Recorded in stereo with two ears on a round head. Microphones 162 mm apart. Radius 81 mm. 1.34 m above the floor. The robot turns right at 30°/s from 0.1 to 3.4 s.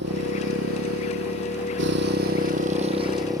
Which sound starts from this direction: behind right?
A motorcycle, at 0.0 s.